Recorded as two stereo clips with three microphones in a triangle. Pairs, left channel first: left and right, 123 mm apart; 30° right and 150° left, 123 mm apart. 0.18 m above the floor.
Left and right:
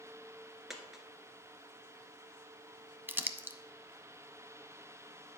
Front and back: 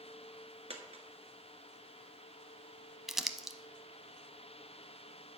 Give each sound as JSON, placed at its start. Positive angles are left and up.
{"t": 0.7, "sound": "a dropped coin", "azimuth_deg": -175, "distance_m": 1.3}
{"t": 3.1, "sound": "crumpling", "azimuth_deg": -130, "distance_m": 0.6}